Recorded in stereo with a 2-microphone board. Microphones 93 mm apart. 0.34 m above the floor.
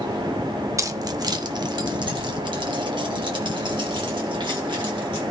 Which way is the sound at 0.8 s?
35° right (ahead or behind).